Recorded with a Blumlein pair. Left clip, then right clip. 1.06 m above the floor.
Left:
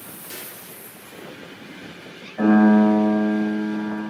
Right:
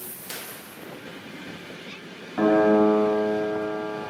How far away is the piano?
About 1.8 m.